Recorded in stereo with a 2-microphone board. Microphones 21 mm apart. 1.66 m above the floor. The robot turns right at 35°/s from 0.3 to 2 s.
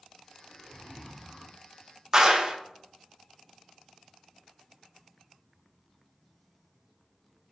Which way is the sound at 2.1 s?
25° right (ahead or behind).